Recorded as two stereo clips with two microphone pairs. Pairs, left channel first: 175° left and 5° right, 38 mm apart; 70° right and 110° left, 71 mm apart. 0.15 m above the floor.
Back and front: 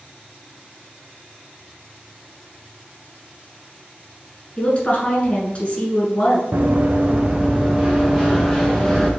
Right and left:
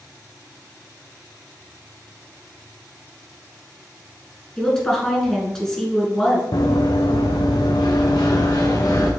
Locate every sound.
4.6 s a woman speaking: 150° right, 1.4 m
6.5 s running footsteps: 45° right, 0.7 m; by 9.1 s 110° right, 1.7 m